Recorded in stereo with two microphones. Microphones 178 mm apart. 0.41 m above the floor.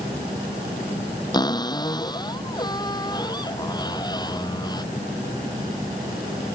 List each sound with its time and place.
1.3 s a cupboard door: 25° left (ahead or behind)